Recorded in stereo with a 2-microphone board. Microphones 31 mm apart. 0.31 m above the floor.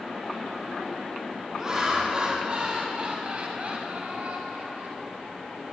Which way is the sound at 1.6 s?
25° right (ahead or behind).